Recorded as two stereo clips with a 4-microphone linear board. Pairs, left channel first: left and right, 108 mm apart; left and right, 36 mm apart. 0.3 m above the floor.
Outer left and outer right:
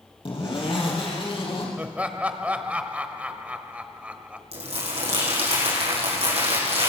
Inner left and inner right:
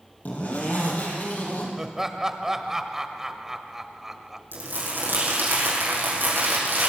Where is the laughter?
15° right (ahead or behind), 1.0 m.